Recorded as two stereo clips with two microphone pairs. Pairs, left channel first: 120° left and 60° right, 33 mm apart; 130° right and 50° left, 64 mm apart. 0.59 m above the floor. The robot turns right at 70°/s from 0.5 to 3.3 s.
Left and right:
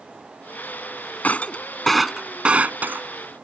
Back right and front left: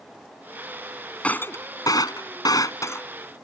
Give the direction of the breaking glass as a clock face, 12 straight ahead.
7 o'clock.